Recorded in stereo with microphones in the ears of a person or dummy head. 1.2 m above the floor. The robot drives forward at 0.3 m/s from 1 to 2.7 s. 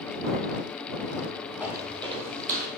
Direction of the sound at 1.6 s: 5° right (ahead or behind).